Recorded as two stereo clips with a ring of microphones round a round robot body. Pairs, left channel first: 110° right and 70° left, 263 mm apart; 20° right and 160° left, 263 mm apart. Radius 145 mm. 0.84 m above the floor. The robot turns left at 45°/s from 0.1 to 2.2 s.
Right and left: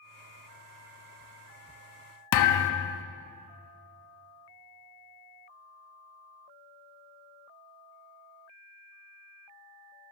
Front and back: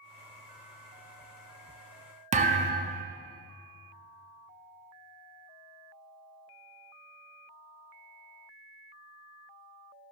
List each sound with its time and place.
2.3 s a thud: 135° right, 0.5 m